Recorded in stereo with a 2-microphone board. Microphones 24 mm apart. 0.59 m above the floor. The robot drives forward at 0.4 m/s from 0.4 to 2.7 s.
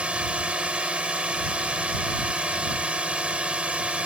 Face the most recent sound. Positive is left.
turn(degrees=-55)  # may be behind; listen again after turning